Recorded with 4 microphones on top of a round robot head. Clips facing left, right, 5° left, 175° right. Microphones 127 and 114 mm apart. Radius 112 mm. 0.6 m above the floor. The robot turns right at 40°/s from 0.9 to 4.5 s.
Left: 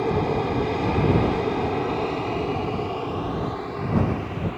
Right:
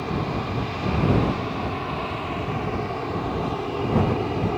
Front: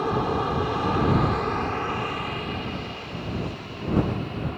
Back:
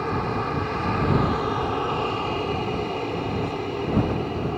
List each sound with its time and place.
0.0 s an aircraft: 80° left; by 4.6 s 135° right